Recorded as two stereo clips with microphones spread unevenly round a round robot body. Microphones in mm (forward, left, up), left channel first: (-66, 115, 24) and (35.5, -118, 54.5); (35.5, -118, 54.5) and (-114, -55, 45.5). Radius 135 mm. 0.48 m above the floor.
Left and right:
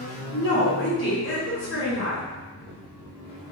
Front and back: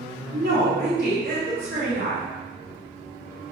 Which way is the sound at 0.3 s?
135° left.